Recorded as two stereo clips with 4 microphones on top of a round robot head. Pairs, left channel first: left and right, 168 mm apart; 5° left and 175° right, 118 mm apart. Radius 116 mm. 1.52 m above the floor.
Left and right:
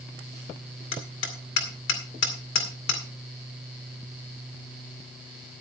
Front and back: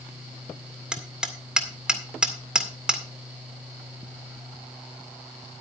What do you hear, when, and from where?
0.9 s hammering: 100° left, 2 m